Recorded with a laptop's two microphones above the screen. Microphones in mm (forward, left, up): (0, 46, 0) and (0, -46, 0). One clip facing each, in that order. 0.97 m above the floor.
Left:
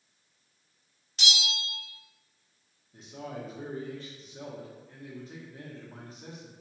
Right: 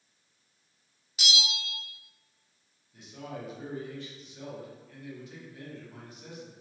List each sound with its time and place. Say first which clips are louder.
1.2 s a bell: even; 5° right (ahead or behind), 0.5 m
2.9 s a man speaking: left 1 dB; 35° left (ahead or behind), 0.7 m